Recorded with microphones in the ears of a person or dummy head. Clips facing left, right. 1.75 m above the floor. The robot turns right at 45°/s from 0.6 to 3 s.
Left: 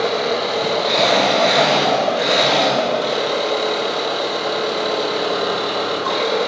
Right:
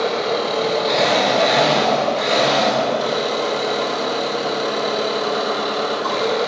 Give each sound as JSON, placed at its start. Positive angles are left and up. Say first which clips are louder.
{"t": 0.0, "sound": "an engine running", "louder": "left 1 dB", "azimuth_deg": 165, "distance_m": 3.5}